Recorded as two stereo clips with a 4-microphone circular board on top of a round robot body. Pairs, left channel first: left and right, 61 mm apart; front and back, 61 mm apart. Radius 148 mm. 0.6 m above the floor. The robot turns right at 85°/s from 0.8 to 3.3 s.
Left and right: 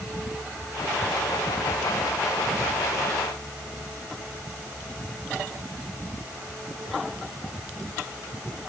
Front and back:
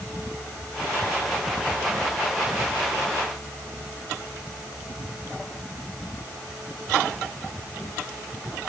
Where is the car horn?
No car horn in this recording.